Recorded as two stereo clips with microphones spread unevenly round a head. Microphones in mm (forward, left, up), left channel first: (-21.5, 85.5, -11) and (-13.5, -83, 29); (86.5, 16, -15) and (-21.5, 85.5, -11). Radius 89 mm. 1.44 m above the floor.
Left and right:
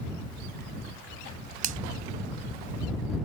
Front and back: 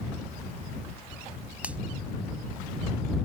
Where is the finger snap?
130° right.